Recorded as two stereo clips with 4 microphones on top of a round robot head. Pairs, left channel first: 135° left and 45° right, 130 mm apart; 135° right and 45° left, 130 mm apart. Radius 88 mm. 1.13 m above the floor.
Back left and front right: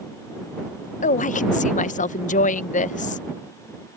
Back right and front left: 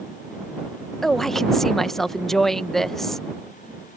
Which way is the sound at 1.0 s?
135° left.